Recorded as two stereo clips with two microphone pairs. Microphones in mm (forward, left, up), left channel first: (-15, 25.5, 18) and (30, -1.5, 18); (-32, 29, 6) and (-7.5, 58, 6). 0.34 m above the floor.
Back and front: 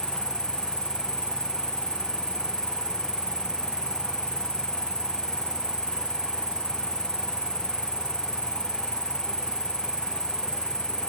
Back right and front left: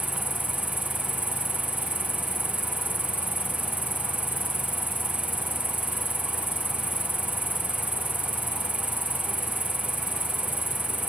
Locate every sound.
0.0 s an insect: 105° right